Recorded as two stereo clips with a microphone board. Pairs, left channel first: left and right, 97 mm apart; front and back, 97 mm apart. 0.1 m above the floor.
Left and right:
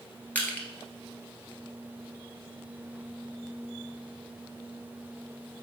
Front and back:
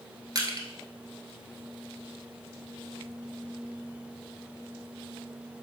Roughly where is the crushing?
Behind left.